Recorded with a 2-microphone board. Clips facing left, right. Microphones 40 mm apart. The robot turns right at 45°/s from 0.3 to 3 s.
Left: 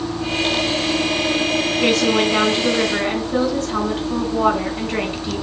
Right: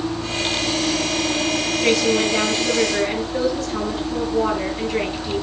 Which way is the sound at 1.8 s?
65° left.